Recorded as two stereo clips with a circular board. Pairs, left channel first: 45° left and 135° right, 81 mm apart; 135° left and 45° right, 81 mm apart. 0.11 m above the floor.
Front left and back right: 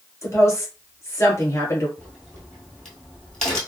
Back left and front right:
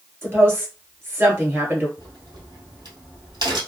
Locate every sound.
0.2 s a woman speaking: 5° left, 1.5 m
2.0 s a crack: 40° right, 1.7 m